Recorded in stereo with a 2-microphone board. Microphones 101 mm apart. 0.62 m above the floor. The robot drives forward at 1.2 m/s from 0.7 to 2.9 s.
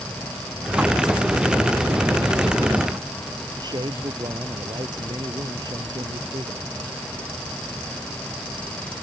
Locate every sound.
3.6 s a man speaking: 45° right (ahead or behind)